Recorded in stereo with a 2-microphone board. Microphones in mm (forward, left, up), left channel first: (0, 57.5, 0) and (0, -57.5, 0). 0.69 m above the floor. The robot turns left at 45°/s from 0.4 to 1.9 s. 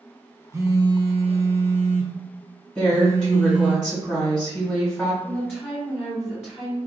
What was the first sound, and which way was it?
A phone buzzing, 20° right.